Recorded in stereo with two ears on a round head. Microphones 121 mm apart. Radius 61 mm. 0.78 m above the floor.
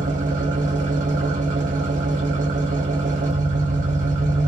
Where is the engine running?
65° right (ahead or behind), 0.9 m.